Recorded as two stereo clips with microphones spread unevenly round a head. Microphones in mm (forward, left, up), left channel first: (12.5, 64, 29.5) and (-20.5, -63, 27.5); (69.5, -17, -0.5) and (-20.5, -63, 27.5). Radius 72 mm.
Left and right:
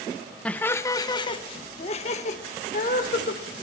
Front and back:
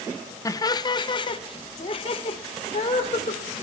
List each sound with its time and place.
0.5 s laughter: 5° right, 1.0 m; by 3.4 s 55° left, 2 m